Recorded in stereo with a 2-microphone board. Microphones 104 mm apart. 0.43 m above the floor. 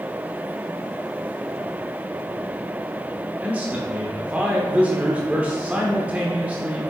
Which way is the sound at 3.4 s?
15° right (ahead or behind).